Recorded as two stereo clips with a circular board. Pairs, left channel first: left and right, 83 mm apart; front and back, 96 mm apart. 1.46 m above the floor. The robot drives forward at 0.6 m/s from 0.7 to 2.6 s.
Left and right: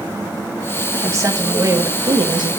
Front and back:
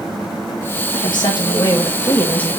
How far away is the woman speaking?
About 1.4 m.